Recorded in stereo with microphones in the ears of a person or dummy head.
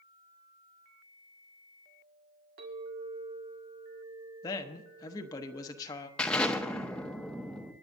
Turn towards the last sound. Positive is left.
turn(degrees=5)  # may be behind; listen again after turning